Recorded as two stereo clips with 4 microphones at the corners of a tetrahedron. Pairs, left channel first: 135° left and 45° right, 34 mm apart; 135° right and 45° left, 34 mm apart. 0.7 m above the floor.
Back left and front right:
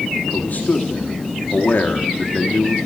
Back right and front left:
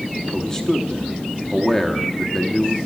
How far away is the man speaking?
About 1.3 m.